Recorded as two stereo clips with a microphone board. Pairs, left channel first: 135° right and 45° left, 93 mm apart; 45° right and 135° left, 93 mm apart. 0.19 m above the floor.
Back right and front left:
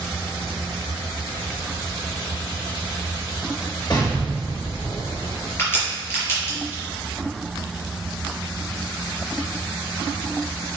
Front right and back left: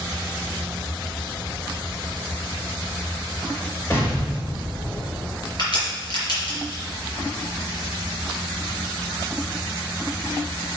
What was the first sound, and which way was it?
An explosion, 105° right.